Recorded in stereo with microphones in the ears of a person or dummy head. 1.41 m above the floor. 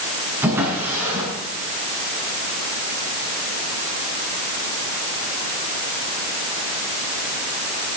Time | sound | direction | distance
0.4 | a drawer | 15° right (ahead or behind) | 6 m